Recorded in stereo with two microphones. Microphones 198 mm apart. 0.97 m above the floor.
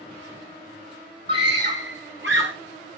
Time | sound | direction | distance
1.3 | a scream | 60° right (ahead or behind) | 1.8 m